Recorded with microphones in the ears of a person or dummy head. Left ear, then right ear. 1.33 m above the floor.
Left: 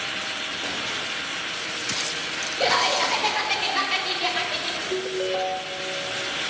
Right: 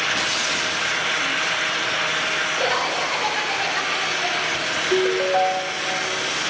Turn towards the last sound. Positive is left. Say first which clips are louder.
# right 10 dB
turn(degrees=-25)  # may be behind; listen again after turning